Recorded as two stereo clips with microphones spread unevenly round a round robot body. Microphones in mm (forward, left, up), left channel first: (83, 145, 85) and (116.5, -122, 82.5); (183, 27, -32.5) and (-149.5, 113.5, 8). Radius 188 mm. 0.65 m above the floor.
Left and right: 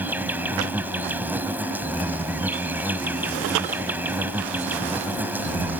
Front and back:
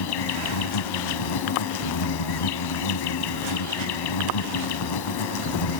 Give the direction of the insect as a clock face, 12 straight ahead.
12 o'clock.